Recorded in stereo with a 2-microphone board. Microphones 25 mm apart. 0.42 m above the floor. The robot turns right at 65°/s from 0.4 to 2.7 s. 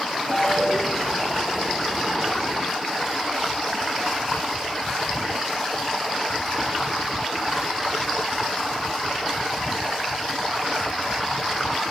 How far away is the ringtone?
About 3.5 m.